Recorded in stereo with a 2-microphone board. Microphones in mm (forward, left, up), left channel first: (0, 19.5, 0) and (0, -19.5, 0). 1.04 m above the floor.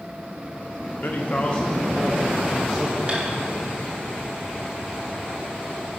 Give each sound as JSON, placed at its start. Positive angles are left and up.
{"t": 1.0, "sound": "a man speaking", "side_deg": 55, "distance_m": 1.1}
{"t": 3.1, "sound": "tapping", "side_deg": -25, "distance_m": 2.5}